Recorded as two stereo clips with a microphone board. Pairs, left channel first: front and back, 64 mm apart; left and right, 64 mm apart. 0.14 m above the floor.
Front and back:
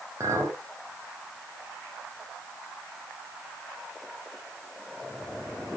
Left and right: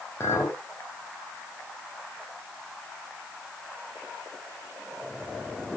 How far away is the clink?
About 4 m.